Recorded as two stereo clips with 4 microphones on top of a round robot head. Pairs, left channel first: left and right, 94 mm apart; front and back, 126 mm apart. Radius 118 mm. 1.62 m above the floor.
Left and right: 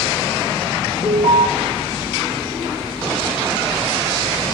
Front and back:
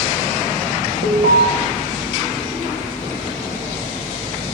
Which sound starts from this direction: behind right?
An alarm, at 1.0 s.